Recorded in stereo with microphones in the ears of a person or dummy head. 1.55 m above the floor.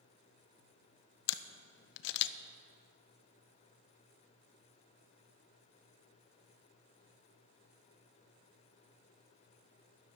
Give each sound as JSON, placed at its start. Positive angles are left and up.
{"t": 1.3, "sound": "a camera shutter", "side_deg": 70, "distance_m": 0.6}